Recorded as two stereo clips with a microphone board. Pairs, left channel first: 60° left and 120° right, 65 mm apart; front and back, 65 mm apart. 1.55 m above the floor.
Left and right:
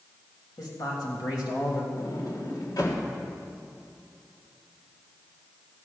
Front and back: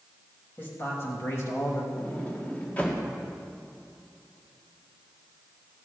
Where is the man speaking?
60° left, 3 m; by 1.9 s 40° left, 2.5 m.